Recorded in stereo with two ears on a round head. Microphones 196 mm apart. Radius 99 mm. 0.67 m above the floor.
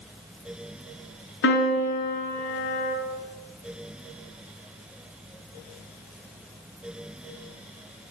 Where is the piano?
55° left (ahead or behind), 3.5 m.